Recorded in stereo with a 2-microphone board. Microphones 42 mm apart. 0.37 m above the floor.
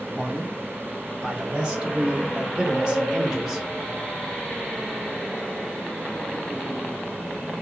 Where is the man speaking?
20° right (ahead or behind), 3 m; by 3.7 s 15° right (ahead or behind), 1.3 m.